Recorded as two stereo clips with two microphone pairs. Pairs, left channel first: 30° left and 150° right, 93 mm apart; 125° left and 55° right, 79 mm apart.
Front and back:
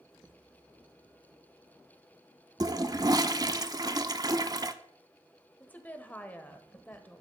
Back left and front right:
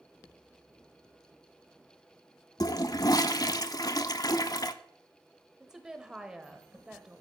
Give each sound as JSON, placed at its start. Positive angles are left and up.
{"t": 2.6, "sound": "a toilet flushing", "azimuth_deg": 165, "distance_m": 0.6}
{"t": 5.6, "sound": "a woman speaking", "azimuth_deg": 5, "distance_m": 1.1}